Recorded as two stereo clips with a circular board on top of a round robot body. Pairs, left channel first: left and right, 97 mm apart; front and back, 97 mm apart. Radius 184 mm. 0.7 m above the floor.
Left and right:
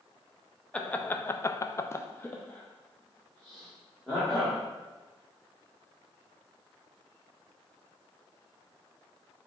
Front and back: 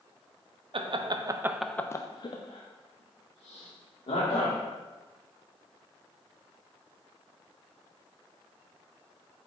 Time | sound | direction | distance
0.7 | laughter | 165° left | 0.7 m